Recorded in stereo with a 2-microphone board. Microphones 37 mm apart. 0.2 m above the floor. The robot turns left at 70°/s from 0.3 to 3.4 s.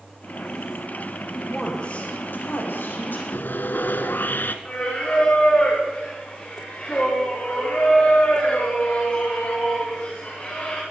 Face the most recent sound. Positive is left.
turn(degrees=35)  # may be behind; listen again after turning